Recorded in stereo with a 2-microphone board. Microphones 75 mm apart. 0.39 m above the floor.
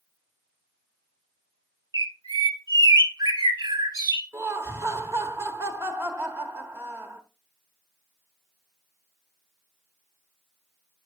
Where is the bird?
70° right (ahead or behind), 0.7 m.